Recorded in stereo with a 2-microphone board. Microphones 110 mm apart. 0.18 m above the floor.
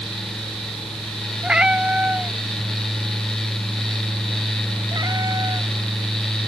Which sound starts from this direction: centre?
A cat meowing, at 1.4 s.